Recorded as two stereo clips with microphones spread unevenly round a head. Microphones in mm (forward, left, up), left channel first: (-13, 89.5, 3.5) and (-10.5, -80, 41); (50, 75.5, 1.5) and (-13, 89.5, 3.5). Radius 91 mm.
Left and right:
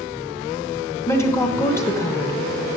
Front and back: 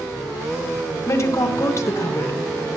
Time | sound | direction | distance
1.1 | a woman speaking | 25° left | 1.0 m